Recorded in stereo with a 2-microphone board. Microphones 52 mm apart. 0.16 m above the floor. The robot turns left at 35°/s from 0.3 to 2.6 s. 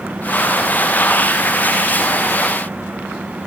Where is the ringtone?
No ringtone in this recording.